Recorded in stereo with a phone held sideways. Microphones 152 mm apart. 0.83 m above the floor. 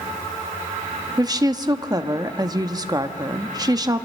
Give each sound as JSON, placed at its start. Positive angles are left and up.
{"t": 1.2, "sound": "a woman speaking", "side_deg": -25, "distance_m": 0.9}